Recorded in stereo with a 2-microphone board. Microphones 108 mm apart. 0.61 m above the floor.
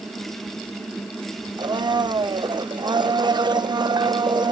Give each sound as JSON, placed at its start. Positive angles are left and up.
{"t": 1.6, "sound": "a blender", "side_deg": -40, "distance_m": 0.5}